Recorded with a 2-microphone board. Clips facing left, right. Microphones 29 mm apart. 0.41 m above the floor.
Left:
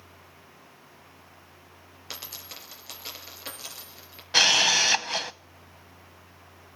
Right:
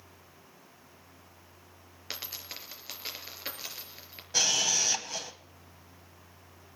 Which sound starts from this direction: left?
A camera shutter, at 4.3 s.